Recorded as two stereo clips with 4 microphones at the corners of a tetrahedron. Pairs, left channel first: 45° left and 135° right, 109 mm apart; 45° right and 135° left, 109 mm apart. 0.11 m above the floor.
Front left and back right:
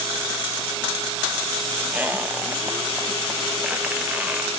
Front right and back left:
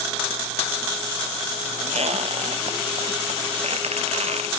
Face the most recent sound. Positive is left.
turn(degrees=150)